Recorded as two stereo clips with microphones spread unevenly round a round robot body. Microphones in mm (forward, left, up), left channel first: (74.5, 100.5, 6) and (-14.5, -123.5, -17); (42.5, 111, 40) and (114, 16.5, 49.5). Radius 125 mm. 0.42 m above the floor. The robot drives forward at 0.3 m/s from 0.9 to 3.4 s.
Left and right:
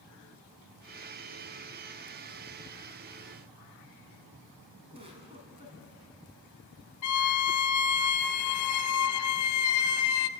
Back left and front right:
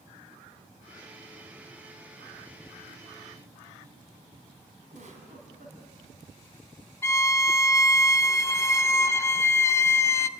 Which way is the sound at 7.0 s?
55° left.